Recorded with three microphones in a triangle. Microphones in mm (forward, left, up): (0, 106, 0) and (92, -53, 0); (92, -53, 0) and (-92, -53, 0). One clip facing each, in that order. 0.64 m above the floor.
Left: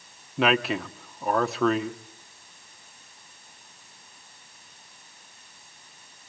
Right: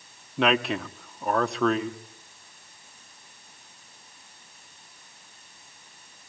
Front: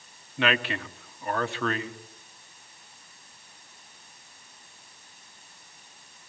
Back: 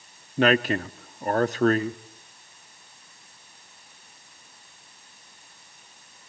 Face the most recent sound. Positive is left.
turn(degrees=-155)